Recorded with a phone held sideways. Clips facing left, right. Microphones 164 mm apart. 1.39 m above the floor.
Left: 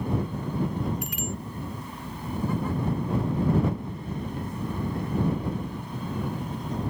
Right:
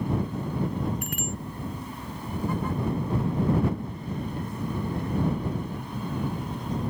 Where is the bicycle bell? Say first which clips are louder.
Even; 50° right (ahead or behind).